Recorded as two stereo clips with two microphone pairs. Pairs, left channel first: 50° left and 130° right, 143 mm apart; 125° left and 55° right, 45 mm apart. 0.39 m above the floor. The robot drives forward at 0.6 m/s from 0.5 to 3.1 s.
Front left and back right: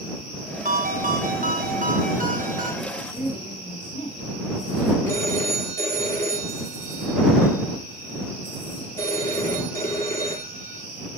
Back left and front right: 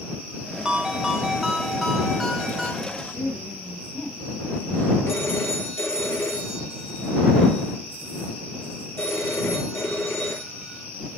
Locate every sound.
0.7 s a ringtone: 130° right, 1.7 m; by 2.7 s 150° right, 2.5 m
2.8 s a woman speaking: 75° left, 3 m; by 5.0 s 80° left, 3 m
5.1 s a phone ringing: 120° left, 5.5 m